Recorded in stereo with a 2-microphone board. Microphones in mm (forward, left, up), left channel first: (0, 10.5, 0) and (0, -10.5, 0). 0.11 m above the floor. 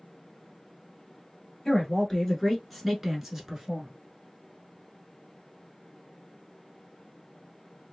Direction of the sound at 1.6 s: 25° left (ahead or behind).